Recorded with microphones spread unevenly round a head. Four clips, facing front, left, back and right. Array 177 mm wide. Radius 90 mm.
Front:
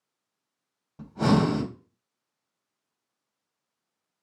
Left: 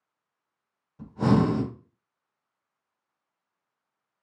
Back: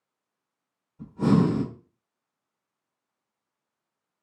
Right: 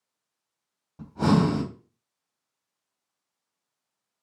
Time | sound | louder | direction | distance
1.0 | breathing | even, back 1 dB | 25° right | 1.3 m